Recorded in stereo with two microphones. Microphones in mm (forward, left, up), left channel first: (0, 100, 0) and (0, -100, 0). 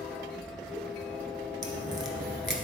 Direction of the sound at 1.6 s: 70° right (ahead or behind).